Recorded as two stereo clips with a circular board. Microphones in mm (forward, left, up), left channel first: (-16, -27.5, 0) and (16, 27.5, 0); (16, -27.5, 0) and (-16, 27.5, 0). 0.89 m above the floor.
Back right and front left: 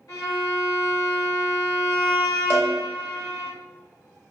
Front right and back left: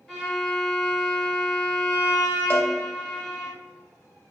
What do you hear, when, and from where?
0.1 s a violin: 140° right, 1.9 m
2.5 s a cowbell: 5° left, 1.0 m